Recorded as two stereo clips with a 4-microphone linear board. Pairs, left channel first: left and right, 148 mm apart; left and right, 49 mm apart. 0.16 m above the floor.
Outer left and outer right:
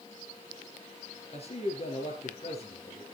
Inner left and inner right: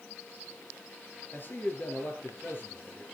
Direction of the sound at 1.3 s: 45° left (ahead or behind).